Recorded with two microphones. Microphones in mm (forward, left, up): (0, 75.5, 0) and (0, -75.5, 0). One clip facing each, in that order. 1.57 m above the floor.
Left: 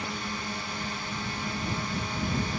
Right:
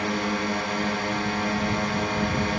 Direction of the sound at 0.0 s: 75° right (ahead or behind).